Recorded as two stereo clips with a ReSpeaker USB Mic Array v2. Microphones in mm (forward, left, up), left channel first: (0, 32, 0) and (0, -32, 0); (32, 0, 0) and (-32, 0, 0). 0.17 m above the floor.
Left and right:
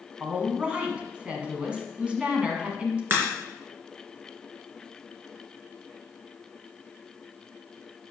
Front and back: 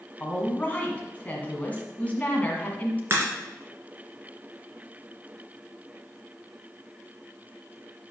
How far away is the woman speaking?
About 1.6 m.